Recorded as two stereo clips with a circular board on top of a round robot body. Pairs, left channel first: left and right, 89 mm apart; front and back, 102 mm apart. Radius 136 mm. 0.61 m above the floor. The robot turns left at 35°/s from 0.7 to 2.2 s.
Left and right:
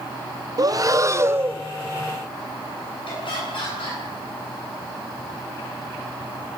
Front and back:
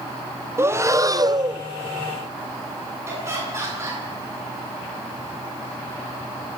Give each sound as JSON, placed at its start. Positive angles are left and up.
{"t": 0.6, "sound": "breathing", "azimuth_deg": -125, "distance_m": 1.1}
{"t": 3.1, "sound": "laughter", "azimuth_deg": 115, "distance_m": 10.0}